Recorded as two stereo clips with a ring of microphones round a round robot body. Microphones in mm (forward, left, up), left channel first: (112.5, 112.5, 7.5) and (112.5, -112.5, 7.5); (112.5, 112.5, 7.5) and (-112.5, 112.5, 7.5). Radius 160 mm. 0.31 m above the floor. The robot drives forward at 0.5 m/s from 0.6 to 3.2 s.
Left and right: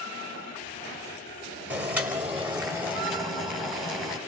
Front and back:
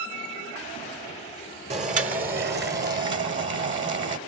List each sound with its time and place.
1.7 s boiling: 165° right, 1.1 m; by 4.2 s 175° right, 1.6 m